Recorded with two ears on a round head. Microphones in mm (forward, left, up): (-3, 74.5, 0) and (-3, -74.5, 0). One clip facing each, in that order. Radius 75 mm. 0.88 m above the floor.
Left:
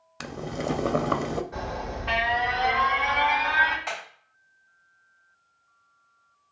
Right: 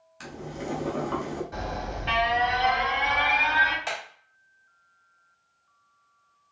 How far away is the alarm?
About 2.5 m.